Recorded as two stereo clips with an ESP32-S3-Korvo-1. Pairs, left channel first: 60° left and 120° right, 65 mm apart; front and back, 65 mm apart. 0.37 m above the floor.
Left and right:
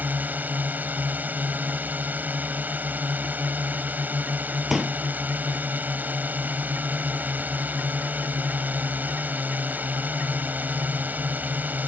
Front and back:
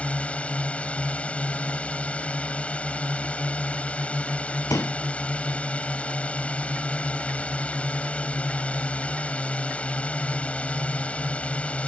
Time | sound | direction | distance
0.0 | a drone | 65° right | ?
4.7 | a pop | 30° right | ?